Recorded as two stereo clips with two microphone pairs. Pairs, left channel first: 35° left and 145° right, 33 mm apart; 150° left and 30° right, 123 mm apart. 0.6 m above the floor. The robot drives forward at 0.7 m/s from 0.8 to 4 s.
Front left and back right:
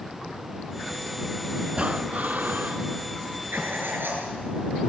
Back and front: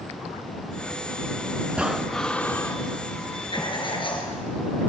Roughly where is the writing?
Behind.